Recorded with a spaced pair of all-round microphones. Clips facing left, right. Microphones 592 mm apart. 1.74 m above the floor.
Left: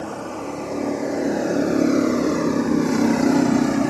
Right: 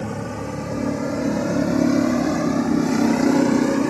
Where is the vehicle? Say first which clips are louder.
Right 1 dB; 45° right (ahead or behind); by 3.9 s 10° left (ahead or behind).